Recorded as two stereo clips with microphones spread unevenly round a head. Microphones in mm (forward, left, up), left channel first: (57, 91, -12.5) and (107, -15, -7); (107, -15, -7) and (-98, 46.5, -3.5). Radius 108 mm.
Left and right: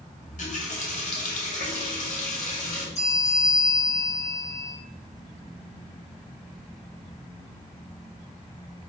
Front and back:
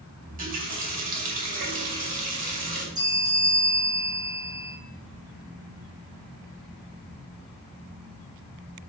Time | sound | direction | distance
0.2 | a running tap | 115° left | 2.5 m
3.0 | a bell | 90° left | 4 m